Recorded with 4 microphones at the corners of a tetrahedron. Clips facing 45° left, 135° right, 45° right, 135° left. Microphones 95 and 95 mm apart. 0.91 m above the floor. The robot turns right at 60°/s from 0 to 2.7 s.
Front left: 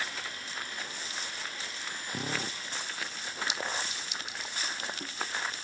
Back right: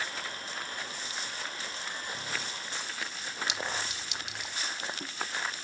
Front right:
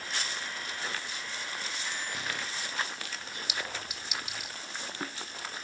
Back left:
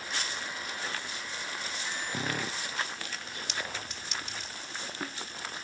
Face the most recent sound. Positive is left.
turn(degrees=-125)